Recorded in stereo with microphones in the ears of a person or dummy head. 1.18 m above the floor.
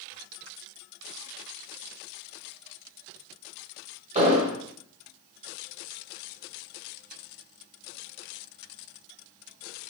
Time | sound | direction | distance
4.2 | an explosion | 35° right (ahead or behind) | 0.8 m